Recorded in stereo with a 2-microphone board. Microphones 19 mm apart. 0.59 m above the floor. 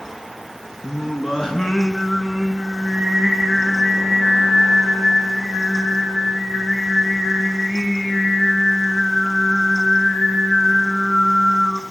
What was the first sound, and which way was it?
Singing, 55° left (ahead or behind).